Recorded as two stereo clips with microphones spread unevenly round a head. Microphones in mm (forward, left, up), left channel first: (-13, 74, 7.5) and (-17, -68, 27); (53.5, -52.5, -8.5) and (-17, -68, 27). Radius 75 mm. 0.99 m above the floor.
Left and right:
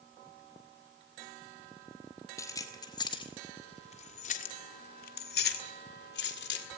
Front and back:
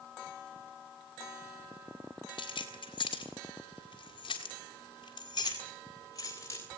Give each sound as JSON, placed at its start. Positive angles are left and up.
{"t": 2.4, "sound": "keys jangling", "azimuth_deg": 15, "distance_m": 2.0}